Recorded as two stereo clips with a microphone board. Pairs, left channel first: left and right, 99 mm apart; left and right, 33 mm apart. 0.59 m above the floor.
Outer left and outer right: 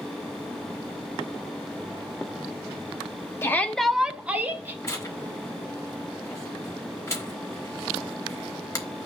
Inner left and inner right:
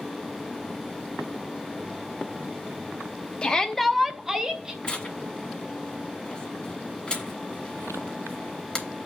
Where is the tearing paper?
30° left (ahead or behind), 1.6 m.